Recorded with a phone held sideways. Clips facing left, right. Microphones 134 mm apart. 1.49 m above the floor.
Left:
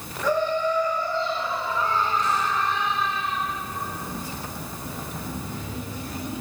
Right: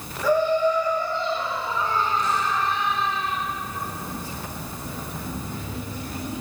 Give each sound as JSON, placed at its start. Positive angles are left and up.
{"t": 0.2, "sound": "laughter", "side_deg": -5, "distance_m": 2.0}